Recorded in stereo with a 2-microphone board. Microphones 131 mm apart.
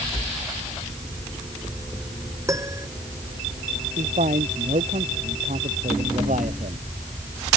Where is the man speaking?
80° right.